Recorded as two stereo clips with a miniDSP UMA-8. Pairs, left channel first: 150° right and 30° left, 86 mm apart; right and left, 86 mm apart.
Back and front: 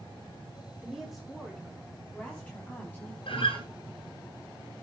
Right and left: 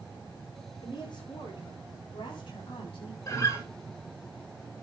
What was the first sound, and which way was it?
A woman speaking, 60° right.